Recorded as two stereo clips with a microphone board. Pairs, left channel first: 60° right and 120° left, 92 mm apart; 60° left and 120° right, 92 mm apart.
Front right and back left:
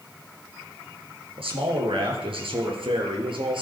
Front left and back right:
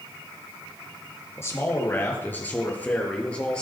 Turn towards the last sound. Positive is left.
turn(degrees=140)